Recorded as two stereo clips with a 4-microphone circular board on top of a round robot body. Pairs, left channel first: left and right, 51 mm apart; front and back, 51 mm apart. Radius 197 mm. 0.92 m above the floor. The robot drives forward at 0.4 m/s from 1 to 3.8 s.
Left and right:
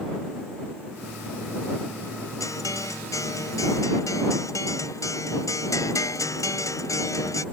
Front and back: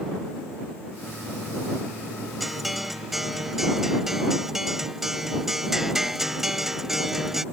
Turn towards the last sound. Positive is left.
turn(degrees=95)